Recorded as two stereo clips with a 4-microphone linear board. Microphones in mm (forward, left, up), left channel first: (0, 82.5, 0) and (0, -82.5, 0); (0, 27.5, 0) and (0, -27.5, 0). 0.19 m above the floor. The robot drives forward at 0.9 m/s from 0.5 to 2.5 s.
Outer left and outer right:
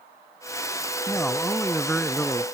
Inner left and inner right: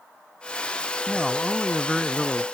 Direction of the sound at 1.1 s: 10° left (ahead or behind).